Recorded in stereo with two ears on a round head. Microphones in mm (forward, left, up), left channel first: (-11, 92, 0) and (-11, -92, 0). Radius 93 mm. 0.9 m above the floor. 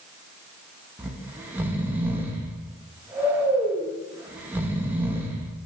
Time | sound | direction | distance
1.0 | snoring | 10° right (ahead or behind) | 0.6 m